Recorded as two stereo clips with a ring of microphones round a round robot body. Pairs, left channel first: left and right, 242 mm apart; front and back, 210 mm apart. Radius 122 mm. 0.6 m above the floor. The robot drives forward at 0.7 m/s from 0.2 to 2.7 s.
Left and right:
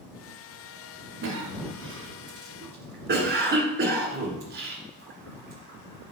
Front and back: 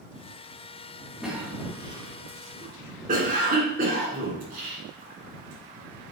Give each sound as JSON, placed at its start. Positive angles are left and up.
{"t": 1.2, "sound": "a cough", "azimuth_deg": -90, "distance_m": 1.6}